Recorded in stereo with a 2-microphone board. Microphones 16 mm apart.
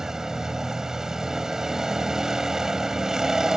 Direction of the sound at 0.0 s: 40° right (ahead or behind).